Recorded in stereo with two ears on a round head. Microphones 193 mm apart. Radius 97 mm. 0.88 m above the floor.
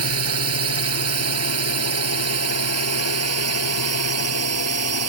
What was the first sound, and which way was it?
A drone, 75° right (ahead or behind).